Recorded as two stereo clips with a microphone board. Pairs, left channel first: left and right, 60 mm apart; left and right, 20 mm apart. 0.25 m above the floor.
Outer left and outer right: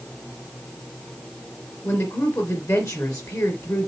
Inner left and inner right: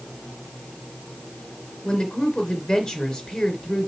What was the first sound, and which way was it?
A woman speaking, 65° left (ahead or behind).